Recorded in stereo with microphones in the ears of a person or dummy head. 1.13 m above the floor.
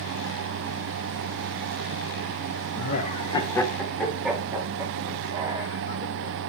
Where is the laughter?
55° left (ahead or behind), 0.9 m; by 5.7 s 15° right (ahead or behind), 3.5 m.